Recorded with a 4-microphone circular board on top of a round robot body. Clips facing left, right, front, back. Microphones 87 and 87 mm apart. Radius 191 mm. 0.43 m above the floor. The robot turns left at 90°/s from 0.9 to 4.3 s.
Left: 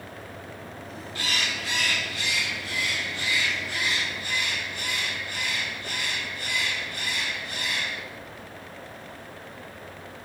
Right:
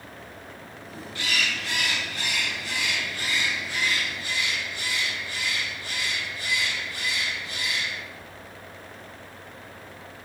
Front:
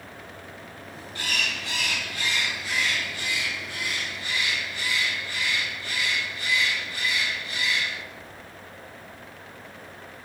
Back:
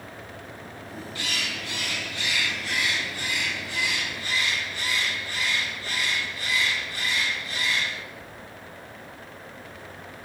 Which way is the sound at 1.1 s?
45° left.